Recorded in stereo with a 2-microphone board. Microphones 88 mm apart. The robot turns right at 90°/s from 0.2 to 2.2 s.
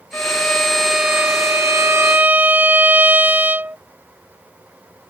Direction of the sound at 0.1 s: 20° left (ahead or behind).